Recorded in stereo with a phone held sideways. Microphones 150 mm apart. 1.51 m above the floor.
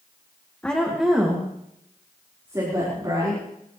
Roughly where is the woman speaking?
Centre.